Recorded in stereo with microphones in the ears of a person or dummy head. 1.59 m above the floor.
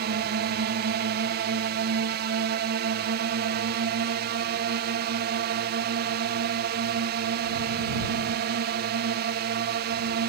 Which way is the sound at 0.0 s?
50° right (ahead or behind).